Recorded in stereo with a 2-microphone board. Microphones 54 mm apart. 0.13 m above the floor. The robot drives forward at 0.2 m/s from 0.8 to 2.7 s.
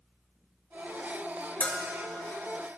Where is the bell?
30° left (ahead or behind), 1.3 m.